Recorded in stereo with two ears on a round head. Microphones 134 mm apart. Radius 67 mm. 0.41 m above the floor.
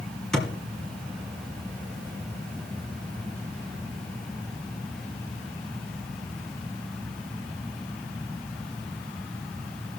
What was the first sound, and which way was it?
A thud, 5° left (ahead or behind).